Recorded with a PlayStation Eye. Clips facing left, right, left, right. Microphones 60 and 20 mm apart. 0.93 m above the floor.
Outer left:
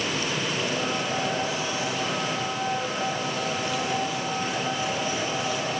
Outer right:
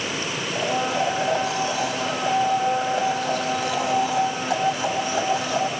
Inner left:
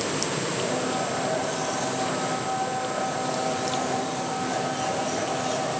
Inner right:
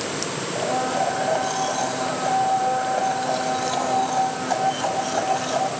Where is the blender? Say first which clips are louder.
Outer right 4 dB, inner right 7 dB; 70° right (ahead or behind), 6 m.